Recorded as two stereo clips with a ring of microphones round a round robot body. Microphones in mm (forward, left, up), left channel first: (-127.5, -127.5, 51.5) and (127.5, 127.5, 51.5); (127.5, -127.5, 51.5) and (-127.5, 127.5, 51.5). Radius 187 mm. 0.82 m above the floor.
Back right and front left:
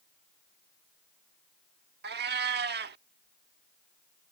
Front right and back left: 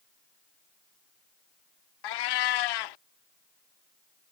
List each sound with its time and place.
2.0 s a cat meowing: 20° right